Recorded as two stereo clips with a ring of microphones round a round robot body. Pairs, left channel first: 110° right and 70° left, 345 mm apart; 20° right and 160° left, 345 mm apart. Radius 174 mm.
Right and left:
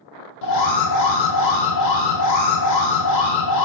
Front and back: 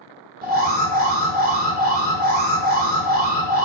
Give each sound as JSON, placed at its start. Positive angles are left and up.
{"t": 0.4, "sound": "an alarm", "azimuth_deg": -140, "distance_m": 1.4}